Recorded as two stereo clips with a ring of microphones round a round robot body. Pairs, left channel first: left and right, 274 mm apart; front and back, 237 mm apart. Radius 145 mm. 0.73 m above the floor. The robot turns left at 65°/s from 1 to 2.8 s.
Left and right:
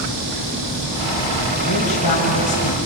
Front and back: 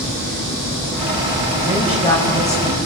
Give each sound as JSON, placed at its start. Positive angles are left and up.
{"t": 1.6, "sound": "a woman speaking", "azimuth_deg": 100, "distance_m": 5.0}